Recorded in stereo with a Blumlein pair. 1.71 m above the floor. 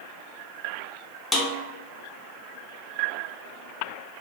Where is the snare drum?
10° left, 1.1 m.